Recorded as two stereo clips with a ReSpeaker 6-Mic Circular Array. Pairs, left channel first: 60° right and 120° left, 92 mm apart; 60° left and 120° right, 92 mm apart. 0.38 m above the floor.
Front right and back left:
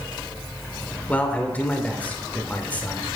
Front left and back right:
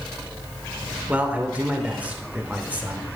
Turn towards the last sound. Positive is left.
turn(degrees=-85)